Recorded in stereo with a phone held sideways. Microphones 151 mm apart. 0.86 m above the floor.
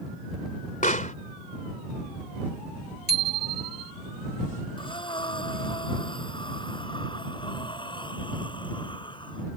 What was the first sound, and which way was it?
A pop, 60° left (ahead or behind).